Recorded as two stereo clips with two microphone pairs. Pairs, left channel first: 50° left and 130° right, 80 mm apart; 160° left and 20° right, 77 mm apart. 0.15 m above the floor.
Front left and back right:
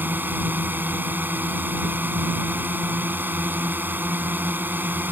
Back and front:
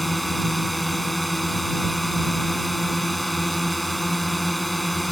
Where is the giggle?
I don't hear a giggle.